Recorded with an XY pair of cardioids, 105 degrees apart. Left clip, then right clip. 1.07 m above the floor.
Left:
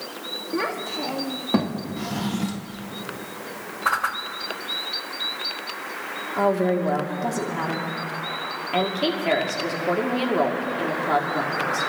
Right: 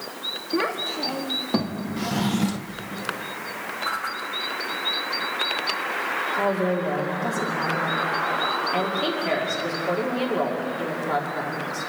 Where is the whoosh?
50° left, 1.0 m.